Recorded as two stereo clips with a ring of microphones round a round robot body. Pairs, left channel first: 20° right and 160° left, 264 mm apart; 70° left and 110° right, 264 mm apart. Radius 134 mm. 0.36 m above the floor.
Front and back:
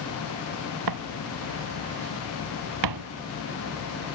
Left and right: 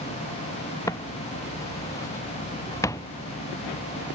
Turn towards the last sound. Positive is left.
turn(degrees=145)